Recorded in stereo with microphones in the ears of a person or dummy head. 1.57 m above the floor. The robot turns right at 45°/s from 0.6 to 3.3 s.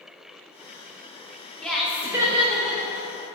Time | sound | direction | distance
1.6 | laughter | 175° left | 0.8 m